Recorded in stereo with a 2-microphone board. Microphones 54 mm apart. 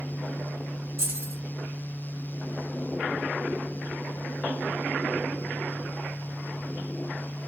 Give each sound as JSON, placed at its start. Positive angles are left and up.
{"t": 1.0, "sound": "keys jangling", "side_deg": -45, "distance_m": 1.5}